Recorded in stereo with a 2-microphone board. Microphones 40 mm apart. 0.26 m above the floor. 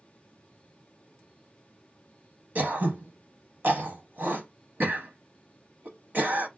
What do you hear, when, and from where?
2.5 s throat clearing: 55° right (ahead or behind), 0.7 m